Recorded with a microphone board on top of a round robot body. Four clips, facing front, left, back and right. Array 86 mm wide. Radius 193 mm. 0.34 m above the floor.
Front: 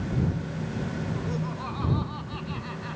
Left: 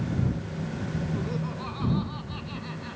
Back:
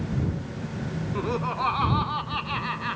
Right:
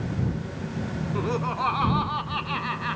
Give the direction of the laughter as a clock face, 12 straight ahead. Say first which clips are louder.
Right 6 dB, back 5 dB; 5 o'clock.